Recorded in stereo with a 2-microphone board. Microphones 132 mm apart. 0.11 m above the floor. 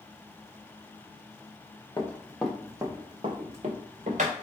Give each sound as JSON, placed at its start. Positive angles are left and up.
{"t": 2.0, "sound": "running footsteps", "side_deg": 20, "distance_m": 1.0}